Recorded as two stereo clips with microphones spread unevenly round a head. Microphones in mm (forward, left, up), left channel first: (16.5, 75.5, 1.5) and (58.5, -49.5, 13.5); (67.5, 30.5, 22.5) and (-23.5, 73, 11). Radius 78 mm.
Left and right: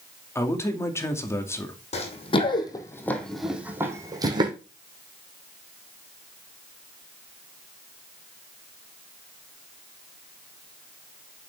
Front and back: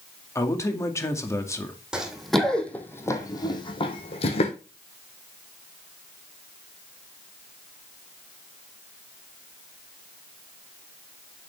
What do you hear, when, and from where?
0.3 s a man speaking: 40° left, 2.5 m
1.9 s running footsteps: 70° left, 3 m; by 4.5 s 20° right, 3 m